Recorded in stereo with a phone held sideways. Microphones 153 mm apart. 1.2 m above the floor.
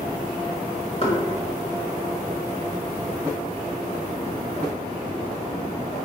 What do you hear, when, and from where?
1.0 s knocking: 40° left (ahead or behind), 1.1 m